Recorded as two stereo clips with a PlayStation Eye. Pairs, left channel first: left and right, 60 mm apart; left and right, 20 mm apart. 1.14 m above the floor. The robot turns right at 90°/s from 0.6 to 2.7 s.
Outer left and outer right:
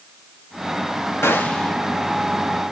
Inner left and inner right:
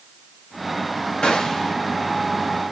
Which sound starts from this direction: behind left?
A gunshot, at 1.2 s.